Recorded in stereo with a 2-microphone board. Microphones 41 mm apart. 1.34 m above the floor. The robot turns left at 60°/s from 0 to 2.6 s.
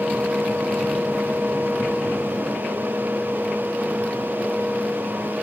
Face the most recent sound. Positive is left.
No sound to turn to.